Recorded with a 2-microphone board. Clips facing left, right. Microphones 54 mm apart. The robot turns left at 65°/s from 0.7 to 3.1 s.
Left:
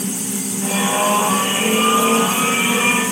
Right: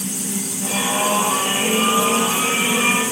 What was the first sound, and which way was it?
Only background noise.